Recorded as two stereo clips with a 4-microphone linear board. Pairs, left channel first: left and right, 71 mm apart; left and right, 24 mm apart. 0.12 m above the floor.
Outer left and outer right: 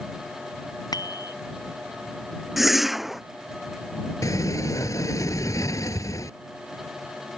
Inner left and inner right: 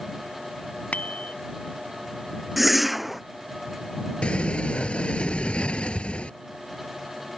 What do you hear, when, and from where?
0.9 s a bicycle bell: 70° left (ahead or behind)
2.6 s a whoosh: 5° right (ahead or behind)
4.2 s a sliding door: 50° left (ahead or behind)